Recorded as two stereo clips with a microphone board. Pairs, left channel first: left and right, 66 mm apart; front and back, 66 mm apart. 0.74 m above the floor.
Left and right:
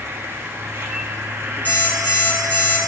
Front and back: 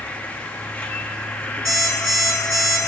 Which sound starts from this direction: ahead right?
An insect, at 0.0 s.